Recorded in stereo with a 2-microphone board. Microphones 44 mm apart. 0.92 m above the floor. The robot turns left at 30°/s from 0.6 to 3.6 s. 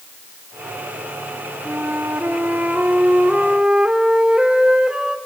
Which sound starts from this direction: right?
A flute, at 1.6 s.